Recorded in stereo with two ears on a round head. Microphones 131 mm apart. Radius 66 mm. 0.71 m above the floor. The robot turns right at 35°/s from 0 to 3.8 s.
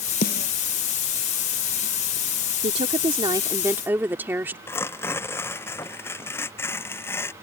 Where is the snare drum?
65° left (ahead or behind); by 0.5 s 75° left (ahead or behind).